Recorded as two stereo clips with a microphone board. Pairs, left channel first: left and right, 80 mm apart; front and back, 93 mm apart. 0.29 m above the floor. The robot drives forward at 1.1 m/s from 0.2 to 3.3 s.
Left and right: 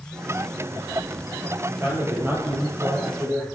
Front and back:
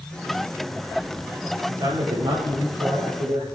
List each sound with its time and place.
1.7 s a man speaking: 140° right, 6 m; by 3.4 s 150° right, 7.5 m